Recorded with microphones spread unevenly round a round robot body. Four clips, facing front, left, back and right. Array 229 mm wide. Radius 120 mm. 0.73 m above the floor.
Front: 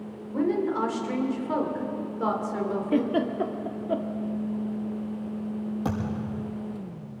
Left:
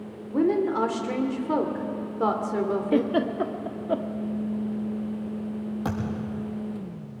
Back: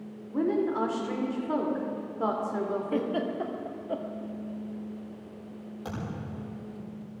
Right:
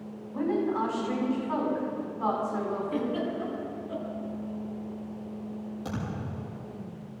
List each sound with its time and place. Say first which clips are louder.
0.3 s a woman speaking: left 5 dB, front 1 dB; 90° left, 3 m
2.9 s a giggle: left 6 dB, front 8 dB; 45° left, 1.6 m
5.8 s a thud: left 4 dB, front 4 dB; 25° left, 7 m